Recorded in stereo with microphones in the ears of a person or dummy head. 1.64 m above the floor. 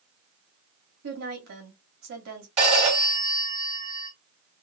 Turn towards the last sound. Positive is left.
turn(degrees=-35)  # may be behind; listen again after turning